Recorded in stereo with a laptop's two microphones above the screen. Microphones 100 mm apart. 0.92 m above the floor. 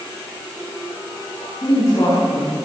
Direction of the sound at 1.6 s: 40° left (ahead or behind).